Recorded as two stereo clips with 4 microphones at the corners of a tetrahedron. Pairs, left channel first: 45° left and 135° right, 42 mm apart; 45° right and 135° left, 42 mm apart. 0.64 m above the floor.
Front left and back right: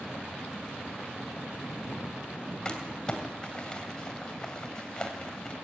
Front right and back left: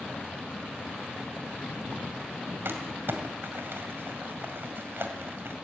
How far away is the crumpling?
About 2.5 m.